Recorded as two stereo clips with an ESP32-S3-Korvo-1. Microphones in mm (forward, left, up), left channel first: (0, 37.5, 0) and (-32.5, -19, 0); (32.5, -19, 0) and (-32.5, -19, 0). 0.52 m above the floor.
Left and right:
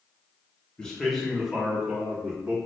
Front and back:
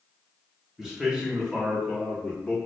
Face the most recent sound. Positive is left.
turn(degrees=-85)